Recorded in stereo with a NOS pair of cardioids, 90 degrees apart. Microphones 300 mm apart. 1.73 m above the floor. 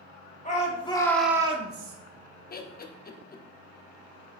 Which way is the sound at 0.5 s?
25° left.